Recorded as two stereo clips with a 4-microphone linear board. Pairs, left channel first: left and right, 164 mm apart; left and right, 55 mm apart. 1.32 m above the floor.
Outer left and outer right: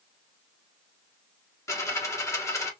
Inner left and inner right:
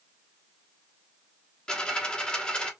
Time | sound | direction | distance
1.7 | a dropped coin | 15° left (ahead or behind) | 0.8 m